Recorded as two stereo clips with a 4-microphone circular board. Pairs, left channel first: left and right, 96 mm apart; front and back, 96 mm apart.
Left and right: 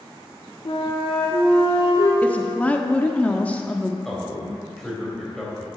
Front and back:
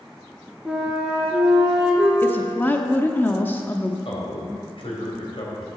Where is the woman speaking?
35° left, 0.6 m.